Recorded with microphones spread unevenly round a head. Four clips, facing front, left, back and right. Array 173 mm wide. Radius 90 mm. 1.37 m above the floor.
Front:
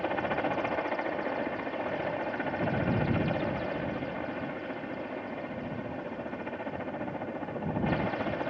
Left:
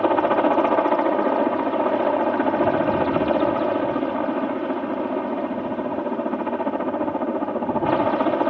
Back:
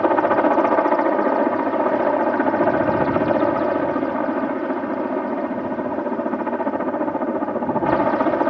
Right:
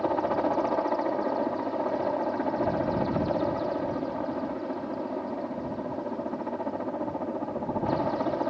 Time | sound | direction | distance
0.0 | a helicopter | 150° left | ?